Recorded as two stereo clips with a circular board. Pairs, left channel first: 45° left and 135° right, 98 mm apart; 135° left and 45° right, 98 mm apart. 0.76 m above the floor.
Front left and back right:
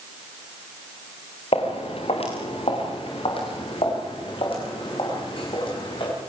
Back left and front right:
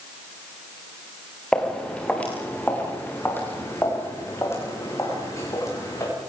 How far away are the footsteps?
About 4.5 m.